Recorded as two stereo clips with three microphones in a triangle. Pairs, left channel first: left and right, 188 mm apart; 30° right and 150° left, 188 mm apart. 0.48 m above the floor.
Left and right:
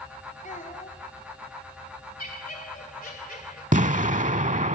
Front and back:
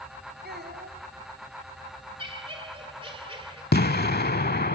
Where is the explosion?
45° right, 0.6 m.